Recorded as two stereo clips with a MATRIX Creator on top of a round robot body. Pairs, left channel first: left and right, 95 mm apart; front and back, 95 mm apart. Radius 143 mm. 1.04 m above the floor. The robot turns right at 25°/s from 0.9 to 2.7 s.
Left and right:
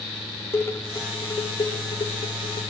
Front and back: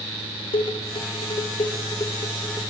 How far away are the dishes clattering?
About 3 m.